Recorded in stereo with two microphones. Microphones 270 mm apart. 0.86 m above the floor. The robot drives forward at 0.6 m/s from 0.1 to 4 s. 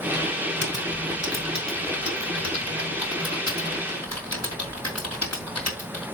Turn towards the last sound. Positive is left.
turn(degrees=65)  # may be behind; listen again after turning